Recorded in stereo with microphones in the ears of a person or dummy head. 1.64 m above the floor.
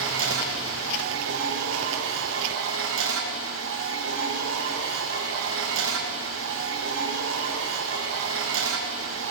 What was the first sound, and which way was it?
A machine running, 75° right (ahead or behind).